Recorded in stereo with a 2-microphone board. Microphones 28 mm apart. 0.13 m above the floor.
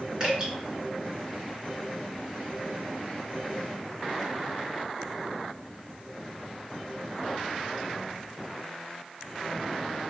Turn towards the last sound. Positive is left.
turn(degrees=-30)  # may be behind; listen again after turning